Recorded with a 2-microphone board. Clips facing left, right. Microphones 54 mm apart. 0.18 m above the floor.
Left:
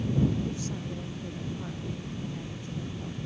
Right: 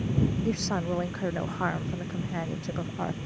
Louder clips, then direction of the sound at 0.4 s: Right 6 dB; 65° right (ahead or behind).